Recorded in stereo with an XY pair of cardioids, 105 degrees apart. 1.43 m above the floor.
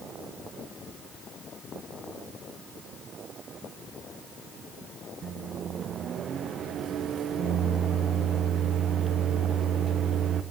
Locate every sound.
5.2 s a microwave: 60° right, 1.0 m